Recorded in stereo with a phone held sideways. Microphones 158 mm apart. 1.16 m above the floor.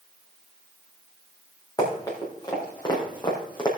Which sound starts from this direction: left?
Running footsteps, at 1.8 s.